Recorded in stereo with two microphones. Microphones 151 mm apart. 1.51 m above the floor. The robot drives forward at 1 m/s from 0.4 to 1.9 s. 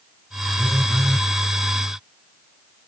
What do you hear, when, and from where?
0.6 s a phone buzzing: 5° left (ahead or behind); by 1.3 s centre (ahead or behind)